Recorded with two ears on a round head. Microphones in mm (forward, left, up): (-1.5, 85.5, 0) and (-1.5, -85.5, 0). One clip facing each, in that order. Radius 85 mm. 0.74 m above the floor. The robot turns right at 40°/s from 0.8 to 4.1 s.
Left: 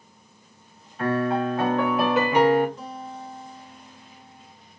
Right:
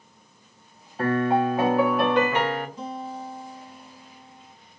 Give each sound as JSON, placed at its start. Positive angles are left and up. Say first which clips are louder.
{"t": 1.0, "sound": "a piano", "louder": "right 2 dB", "azimuth_deg": -40, "distance_m": 0.7}
{"t": 2.8, "sound": "a guitar", "louder": "right 3 dB", "azimuth_deg": -35, "distance_m": 1.6}